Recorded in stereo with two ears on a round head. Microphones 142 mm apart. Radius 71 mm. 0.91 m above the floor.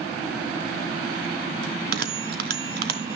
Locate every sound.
1.6 s a bell: 70° right (ahead or behind), 2.5 m